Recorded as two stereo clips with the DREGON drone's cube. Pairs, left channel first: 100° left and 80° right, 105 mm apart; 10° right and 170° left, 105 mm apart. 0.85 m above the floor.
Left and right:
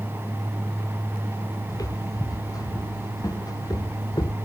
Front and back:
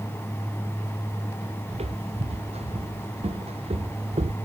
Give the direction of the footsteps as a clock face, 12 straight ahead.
7 o'clock.